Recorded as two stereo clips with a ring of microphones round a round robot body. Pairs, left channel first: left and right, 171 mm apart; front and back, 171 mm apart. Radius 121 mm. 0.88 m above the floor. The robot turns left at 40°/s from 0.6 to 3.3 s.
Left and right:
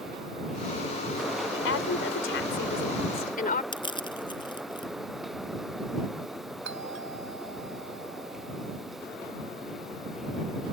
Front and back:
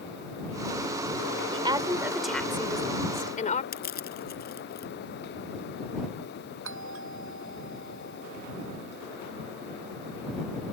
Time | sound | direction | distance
1.5 | a woman speaking | 120° left | ?
3.7 | crushing | 25° left | ?
6.7 | a doorbell | 140° right | ?